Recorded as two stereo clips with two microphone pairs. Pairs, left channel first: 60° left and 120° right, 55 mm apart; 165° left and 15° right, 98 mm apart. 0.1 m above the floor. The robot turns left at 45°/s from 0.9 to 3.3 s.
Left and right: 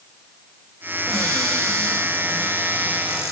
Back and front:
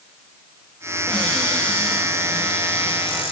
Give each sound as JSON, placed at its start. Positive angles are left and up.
{"t": 1.1, "sound": "a cupboard door", "azimuth_deg": -95, "distance_m": 4.5}